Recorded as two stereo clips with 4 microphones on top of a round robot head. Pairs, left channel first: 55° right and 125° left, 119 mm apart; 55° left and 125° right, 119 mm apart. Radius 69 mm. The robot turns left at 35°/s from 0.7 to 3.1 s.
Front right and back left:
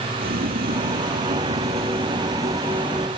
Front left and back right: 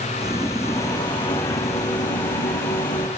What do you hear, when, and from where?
0.2 s boiling: 120° left; by 3.1 s 40° left